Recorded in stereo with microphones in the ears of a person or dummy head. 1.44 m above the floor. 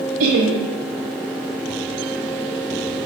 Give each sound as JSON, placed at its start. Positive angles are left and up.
{"t": 0.2, "sound": "laughter", "side_deg": -70, "distance_m": 0.9}